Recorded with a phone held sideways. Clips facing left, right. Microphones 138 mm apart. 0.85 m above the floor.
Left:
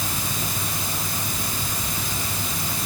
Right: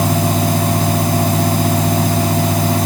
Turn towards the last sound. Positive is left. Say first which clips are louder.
# right 15 dB
turn(degrees=-85)